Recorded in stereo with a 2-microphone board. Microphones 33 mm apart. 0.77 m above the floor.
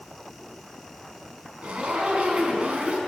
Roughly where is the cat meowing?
No cat meowing in this recording.